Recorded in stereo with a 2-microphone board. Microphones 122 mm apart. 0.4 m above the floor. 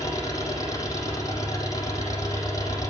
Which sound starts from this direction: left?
An engine running, at 0.0 s.